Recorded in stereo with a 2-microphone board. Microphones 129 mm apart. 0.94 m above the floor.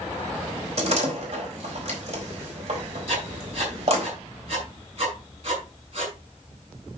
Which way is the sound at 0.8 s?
50° right (ahead or behind).